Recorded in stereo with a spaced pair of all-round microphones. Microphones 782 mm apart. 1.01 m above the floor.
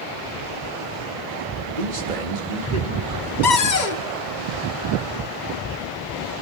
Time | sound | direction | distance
1.8 | a man speaking | 70° right (ahead or behind) | 2 m
3.4 | a cupboard door | 65° left (ahead or behind) | 1.2 m